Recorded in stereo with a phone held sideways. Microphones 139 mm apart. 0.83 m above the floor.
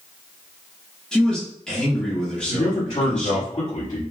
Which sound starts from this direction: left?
A man speaking, at 2.5 s.